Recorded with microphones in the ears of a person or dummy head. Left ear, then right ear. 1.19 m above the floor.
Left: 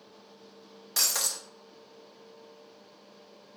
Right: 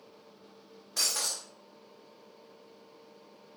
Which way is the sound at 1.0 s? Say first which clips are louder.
Left 2 dB; 70° left (ahead or behind).